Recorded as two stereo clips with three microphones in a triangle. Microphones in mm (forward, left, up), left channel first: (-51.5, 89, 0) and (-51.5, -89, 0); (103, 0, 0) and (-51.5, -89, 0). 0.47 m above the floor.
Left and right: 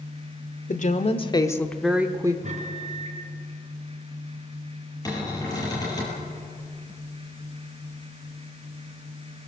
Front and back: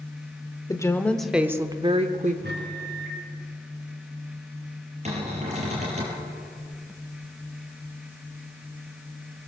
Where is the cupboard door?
160° left, 6.5 m.